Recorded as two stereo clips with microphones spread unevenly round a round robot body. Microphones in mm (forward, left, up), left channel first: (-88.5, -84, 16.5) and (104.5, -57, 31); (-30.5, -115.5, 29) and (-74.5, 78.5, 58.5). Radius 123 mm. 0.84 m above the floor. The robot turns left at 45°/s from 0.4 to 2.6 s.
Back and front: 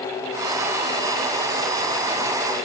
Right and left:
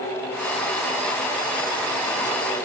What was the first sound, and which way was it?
Only background noise.